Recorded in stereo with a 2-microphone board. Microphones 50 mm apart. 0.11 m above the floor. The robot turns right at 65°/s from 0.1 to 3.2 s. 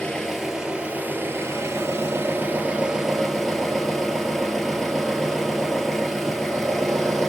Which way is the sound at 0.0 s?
160° left.